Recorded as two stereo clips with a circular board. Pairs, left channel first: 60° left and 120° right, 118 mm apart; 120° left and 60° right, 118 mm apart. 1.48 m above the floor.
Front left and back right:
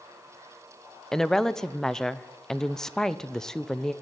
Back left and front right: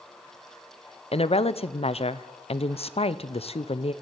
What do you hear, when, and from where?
1.1 s a woman speaking: 145° left, 0.7 m